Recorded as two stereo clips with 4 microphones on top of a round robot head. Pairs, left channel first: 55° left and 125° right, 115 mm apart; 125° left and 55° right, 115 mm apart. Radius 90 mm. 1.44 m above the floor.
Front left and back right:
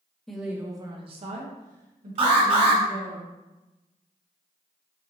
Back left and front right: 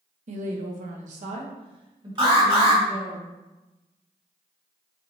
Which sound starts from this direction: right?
An alarm, at 2.2 s.